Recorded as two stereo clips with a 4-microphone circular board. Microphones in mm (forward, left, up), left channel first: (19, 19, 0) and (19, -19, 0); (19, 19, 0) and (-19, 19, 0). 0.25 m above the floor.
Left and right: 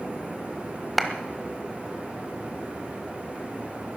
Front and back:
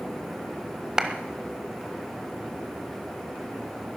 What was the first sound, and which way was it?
A clap, 175° right.